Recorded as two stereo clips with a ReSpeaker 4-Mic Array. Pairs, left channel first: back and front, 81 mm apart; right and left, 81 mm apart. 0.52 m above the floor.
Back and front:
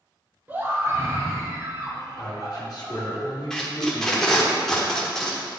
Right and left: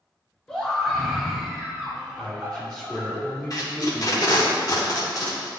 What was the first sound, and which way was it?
A scream, 20° right.